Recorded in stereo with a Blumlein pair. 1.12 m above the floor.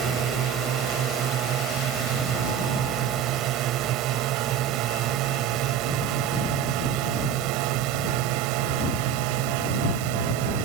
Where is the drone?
30° right; by 10.7 s 45° right.